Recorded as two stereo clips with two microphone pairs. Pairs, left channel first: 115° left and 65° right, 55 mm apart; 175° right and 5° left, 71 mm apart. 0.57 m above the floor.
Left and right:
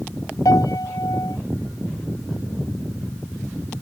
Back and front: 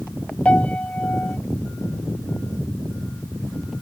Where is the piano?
110° left.